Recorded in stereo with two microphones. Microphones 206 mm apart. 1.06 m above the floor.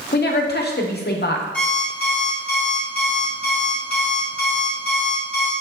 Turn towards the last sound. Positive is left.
turn(degrees=5)  # may be behind; listen again after turning